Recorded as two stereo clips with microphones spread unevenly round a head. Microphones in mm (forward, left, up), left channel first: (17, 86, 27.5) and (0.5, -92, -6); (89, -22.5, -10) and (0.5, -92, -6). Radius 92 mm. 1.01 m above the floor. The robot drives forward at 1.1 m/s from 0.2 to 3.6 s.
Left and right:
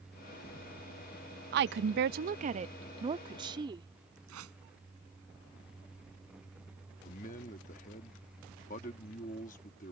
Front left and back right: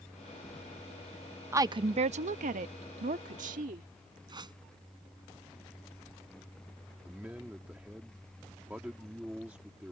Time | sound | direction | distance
1.5 | a woman speaking | 75° right | ?
4.3 | a whoosh | 95° right | ?
7.0 | a man speaking | 135° left | ?